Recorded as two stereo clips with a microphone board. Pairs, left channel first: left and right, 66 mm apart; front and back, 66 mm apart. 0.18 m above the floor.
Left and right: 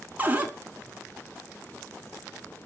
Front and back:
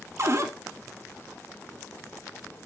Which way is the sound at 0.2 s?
150° right.